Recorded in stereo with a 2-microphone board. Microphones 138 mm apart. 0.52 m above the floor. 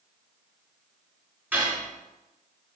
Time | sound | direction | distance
1.5 | cutlery clinking | 15° right (ahead or behind) | 3.5 m